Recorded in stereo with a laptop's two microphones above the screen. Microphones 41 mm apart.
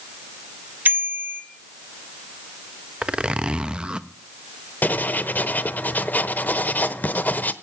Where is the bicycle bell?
50° right (ahead or behind), 3 m.